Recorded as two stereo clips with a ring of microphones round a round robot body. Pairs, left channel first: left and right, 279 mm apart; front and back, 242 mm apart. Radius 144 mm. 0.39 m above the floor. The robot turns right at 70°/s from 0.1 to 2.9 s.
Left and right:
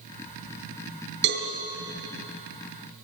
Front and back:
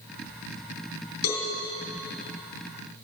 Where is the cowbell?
40° right, 3.5 m; by 1.4 s 25° right, 3.5 m.